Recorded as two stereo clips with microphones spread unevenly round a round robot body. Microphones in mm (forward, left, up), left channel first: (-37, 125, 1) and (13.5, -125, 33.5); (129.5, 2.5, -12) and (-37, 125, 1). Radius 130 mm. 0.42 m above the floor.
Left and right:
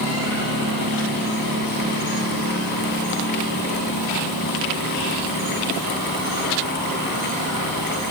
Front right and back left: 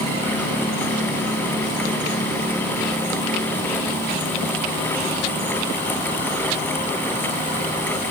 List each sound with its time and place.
Only background noise.